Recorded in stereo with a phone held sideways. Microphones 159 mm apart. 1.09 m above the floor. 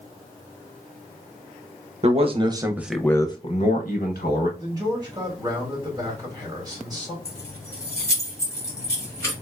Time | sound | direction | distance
2.0 | a man speaking | 40° right (ahead or behind) | 0.8 m
4.6 | a man speaking | 25° right (ahead or behind) | 2 m
7.2 | keys jangling | 15° left (ahead or behind) | 1.4 m